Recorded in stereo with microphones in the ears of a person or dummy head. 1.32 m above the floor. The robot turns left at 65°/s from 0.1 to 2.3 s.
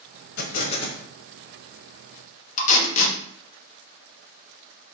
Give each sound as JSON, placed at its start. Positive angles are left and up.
{"t": 0.4, "sound": "an explosion", "azimuth_deg": 60, "distance_m": 0.9}
{"t": 2.6, "sound": "tape being pulled", "side_deg": 35, "distance_m": 0.9}